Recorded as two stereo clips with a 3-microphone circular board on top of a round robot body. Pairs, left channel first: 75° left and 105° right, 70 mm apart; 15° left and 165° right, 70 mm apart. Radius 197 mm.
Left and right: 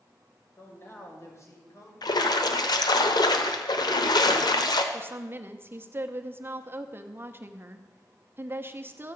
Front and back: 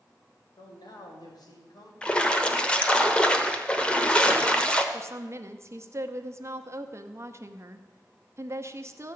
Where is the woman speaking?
145° right, 1.0 m.